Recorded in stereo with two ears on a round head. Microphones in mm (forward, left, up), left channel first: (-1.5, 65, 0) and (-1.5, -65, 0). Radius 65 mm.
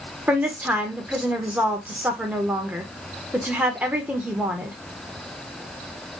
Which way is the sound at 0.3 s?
10° right (ahead or behind).